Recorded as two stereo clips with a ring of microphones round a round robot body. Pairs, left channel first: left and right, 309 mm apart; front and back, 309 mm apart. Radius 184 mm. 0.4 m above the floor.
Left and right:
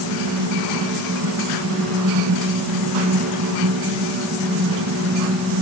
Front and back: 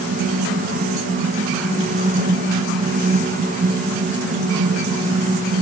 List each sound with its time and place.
Only background noise.